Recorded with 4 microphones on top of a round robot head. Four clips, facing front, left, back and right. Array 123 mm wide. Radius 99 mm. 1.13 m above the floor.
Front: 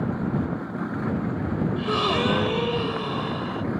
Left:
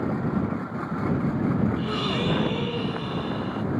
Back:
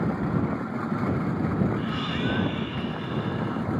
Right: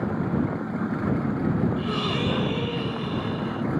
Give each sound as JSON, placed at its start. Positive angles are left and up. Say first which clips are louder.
{"t": 1.8, "sound": "a gasp", "louder": "even, front 5 dB", "azimuth_deg": 10}